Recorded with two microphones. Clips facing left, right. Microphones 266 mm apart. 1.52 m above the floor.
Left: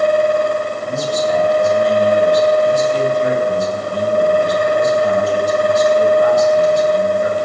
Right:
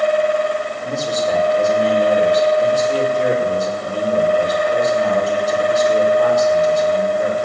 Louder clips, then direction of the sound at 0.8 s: Right 1 dB; 65° right (ahead or behind).